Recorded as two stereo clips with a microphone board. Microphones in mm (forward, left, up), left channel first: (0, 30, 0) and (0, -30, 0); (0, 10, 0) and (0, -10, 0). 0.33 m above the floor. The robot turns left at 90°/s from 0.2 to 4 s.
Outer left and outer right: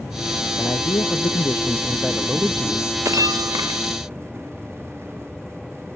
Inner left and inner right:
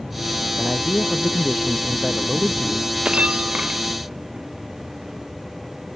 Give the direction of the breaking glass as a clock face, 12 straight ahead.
2 o'clock.